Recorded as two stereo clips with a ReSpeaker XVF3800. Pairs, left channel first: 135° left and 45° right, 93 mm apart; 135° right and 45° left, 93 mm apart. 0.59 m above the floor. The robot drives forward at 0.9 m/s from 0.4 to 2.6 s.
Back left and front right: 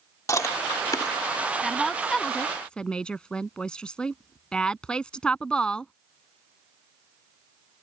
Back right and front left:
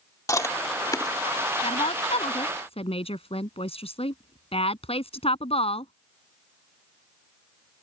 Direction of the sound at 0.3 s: Straight behind.